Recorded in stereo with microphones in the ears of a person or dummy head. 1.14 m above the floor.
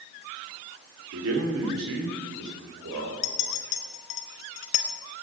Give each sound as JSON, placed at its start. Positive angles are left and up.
{"t": 1.1, "sound": "a man speaking", "side_deg": -85, "distance_m": 2.5}
{"t": 3.2, "sound": "a clink", "side_deg": 40, "distance_m": 0.7}